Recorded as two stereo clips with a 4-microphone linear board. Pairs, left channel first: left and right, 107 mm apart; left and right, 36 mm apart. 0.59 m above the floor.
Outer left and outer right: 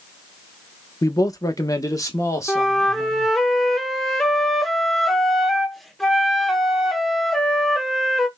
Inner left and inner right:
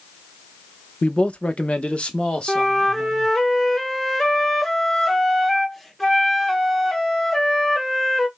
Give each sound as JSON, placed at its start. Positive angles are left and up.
{"t": 1.0, "sound": "a man speaking", "side_deg": 30, "distance_m": 0.6}
{"t": 2.5, "sound": "a flute", "side_deg": 0, "distance_m": 0.8}